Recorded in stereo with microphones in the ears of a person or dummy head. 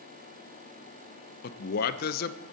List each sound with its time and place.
1.4 s a man speaking: 50° left (ahead or behind), 0.9 m